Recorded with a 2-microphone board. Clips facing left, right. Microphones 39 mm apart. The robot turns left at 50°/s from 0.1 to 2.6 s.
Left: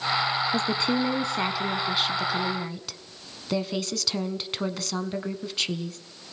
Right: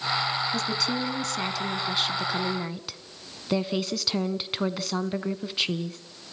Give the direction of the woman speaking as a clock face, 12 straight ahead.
9 o'clock.